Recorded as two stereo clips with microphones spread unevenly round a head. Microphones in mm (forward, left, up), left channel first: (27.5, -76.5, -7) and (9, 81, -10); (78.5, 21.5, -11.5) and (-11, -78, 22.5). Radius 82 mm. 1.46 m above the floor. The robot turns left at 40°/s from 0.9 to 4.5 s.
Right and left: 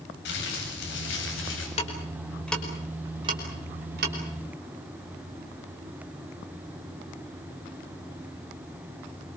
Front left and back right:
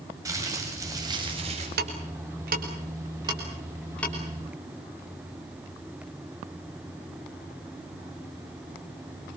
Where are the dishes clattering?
I don't hear dishes clattering.